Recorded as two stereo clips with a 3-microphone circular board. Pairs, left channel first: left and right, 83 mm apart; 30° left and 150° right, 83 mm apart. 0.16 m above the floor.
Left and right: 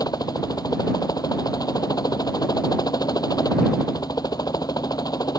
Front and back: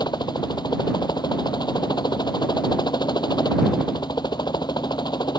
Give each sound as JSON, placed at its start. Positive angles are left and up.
{"t": 0.0, "sound": "a helicopter", "azimuth_deg": 55}